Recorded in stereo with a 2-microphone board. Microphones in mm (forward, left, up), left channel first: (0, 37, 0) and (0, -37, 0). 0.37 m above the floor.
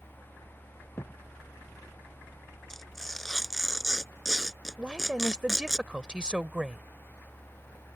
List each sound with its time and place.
1.0 s a thud: 35° left (ahead or behind)
2.7 s tearing paper: centre (ahead or behind)
4.8 s a woman speaking: 10° right (ahead or behind)